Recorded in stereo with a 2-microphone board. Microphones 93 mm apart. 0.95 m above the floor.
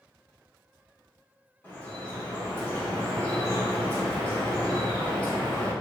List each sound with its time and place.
1.6 s dripping: 25° left (ahead or behind), 1.8 m